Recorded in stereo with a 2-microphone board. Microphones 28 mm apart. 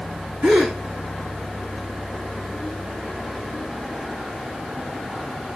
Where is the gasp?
70° right (ahead or behind), 5.5 m.